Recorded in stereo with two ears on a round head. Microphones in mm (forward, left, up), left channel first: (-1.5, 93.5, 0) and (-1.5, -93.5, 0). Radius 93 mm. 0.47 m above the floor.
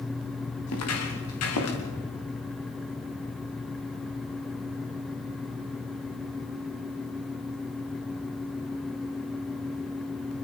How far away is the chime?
No chime in this recording.